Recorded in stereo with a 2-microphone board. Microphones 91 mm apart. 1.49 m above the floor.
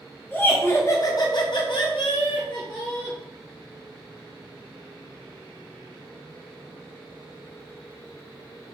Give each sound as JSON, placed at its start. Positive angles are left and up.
{"t": 0.3, "sound": "laughter", "side_deg": 20, "distance_m": 0.8}